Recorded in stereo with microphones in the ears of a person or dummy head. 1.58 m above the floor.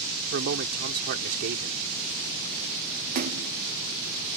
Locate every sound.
0.3 s a man speaking: 60° right (ahead or behind)
3.1 s a splash: 50° right (ahead or behind)